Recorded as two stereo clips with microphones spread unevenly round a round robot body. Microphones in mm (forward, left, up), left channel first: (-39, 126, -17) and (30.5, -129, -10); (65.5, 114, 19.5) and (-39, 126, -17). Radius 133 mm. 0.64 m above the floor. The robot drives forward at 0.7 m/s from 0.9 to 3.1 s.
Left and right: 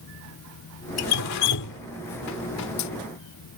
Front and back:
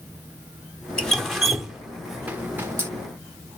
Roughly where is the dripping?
Left.